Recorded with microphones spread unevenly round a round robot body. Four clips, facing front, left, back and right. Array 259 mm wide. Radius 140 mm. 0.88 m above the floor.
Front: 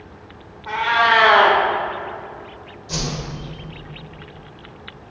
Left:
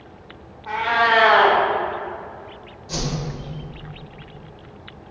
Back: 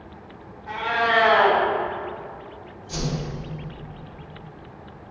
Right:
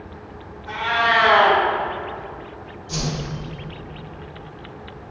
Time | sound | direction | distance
0.7 | a cat meowing | 25° left | 1.7 m
2.9 | a whoosh | 20° left | 2.5 m